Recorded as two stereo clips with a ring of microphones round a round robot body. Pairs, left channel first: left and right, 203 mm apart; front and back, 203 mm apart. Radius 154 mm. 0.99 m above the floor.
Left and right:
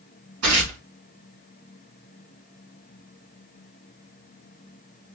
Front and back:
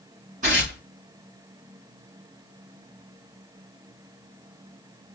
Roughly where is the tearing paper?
Behind right.